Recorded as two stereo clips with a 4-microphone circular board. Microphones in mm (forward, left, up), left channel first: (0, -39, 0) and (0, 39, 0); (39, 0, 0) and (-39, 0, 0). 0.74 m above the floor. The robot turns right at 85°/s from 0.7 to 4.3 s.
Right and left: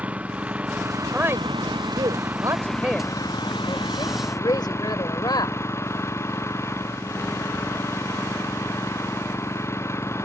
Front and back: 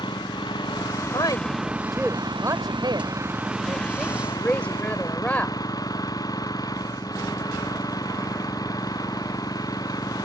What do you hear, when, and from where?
0.0 s an engine running: 20° left; by 10.3 s 35° right
1.1 s a woman speaking: 20° left; by 5.6 s 70° right